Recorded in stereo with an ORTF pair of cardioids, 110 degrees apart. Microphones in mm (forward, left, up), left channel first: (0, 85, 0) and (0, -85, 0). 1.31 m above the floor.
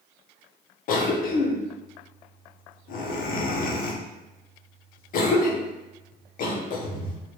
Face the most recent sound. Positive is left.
turn(degrees=55)